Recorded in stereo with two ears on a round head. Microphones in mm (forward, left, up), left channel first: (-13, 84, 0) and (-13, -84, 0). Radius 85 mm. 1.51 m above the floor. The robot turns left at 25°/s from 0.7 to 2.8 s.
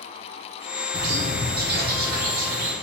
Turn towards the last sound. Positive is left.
turn(degrees=-115)